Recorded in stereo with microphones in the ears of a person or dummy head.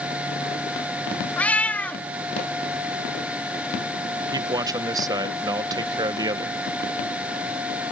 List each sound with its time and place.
1.4 s a cat meowing: 15° left (ahead or behind)
4.3 s a man speaking: 25° right (ahead or behind)